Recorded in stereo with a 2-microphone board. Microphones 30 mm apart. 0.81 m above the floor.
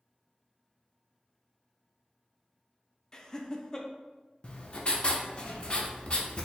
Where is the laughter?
20° left (ahead or behind), 0.5 m.